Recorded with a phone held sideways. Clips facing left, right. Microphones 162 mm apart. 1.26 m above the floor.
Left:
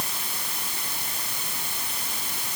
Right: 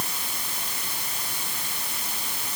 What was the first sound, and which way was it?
Only background noise.